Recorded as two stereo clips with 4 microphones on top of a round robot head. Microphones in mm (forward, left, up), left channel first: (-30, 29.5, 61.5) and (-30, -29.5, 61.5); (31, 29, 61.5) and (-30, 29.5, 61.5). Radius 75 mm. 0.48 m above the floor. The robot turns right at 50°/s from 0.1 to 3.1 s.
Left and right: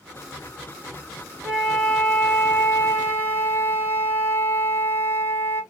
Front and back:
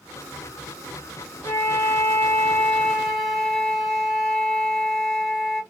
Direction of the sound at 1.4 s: 5° right.